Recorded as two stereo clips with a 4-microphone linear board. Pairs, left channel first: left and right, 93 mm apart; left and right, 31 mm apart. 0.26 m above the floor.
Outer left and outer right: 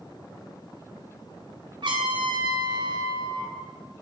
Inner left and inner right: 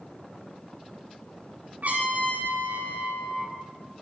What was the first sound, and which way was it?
A trumpet, 65° right (ahead or behind).